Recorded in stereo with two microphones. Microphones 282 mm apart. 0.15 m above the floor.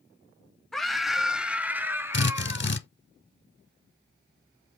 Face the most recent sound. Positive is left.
turn(degrees=40)  # may be behind; listen again after turning